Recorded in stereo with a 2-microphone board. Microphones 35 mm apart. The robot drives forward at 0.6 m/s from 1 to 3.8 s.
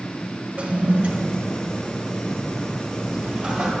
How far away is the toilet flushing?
About 1.2 m.